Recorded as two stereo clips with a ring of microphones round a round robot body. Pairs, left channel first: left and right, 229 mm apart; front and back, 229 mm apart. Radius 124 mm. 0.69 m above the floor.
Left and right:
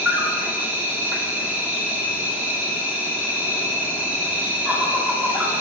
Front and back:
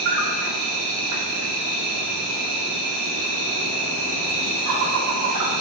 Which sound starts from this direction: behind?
An insect, at 0.0 s.